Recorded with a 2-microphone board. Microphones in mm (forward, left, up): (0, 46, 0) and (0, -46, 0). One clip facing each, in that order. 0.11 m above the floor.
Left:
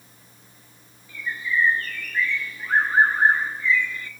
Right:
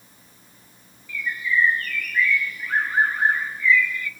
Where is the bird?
30° left (ahead or behind), 0.8 m.